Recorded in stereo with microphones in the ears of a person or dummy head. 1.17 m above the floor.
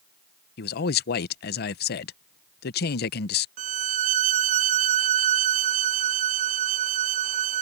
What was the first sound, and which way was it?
A man speaking, 55° left (ahead or behind).